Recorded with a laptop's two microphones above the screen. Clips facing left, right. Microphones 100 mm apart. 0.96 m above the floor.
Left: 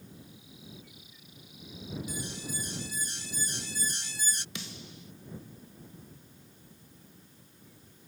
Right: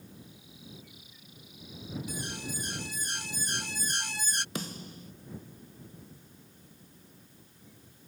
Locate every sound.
2.1 s an alarm: 65° right (ahead or behind)
4.5 s a snare drum: 45° right (ahead or behind)